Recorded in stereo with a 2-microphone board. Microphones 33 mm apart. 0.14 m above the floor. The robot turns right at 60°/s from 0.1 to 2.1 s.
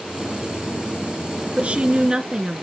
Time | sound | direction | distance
1.6 | a woman speaking | 65° right | 1.7 m